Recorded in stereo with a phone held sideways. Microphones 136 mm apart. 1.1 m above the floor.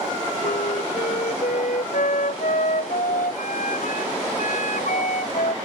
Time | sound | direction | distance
0.4 | a flute | 80° left | ?